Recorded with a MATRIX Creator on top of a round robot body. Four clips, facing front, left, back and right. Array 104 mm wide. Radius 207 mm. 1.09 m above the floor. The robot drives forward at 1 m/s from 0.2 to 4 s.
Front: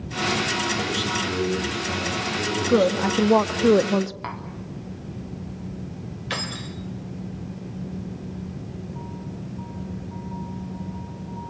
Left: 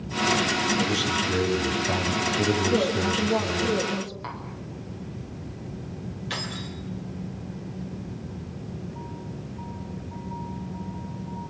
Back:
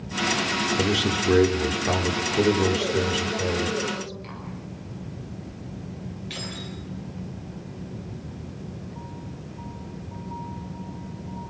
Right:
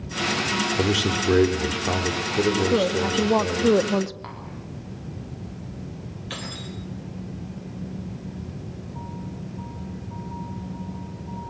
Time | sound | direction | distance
0.8 | a man speaking | 120° right | 4 m
2.7 | a woman speaking | 15° right | 2 m
4.2 | tapping | straight ahead | 4 m
6.3 | keys jangling | 5° left | 3.5 m